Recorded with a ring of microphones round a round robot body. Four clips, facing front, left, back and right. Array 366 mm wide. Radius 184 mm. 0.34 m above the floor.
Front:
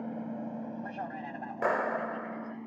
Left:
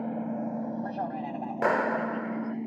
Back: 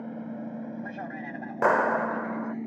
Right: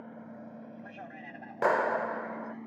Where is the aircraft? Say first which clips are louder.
Left 14 dB, back 1 dB; 95° left; by 2.7 s 130° left.